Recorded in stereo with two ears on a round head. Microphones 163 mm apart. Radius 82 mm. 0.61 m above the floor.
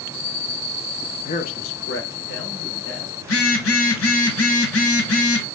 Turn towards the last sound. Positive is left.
turn(degrees=85)